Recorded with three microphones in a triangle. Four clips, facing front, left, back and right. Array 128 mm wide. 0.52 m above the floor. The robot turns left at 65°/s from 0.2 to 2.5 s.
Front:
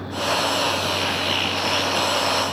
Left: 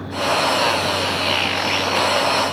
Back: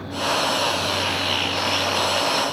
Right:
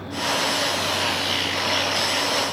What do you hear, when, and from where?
Only background noise.